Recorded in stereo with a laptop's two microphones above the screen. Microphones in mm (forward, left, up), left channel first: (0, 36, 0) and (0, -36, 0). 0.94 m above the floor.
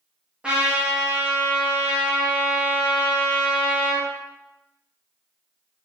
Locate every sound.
0.4 s a trumpet: 15° right (ahead or behind), 0.7 m